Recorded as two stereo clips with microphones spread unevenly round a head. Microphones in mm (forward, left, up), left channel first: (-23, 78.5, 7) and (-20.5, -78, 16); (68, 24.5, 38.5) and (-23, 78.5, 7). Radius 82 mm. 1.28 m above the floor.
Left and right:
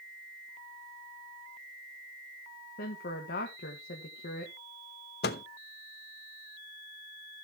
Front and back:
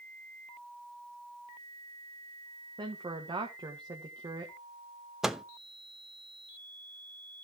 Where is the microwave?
60° left, 0.9 m.